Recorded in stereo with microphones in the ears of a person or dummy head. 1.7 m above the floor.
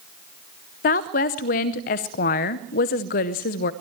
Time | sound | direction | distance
0.8 | a woman speaking | 45° left (ahead or behind) | 0.8 m